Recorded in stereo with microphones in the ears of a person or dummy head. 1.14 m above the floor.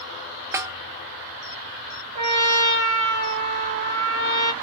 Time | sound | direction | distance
0.5 | a snare drum | 15° right (ahead or behind) | 0.5 m
2.1 | a trumpet | 35° right (ahead or behind) | 1.9 m